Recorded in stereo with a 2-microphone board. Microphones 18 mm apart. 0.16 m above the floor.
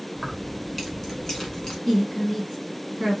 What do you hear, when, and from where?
0.1 s keys jangling: 5° right (ahead or behind), 1.2 m; by 1.8 s 40° left (ahead or behind), 1.1 m
1.9 s a woman speaking: 35° left (ahead or behind), 1.8 m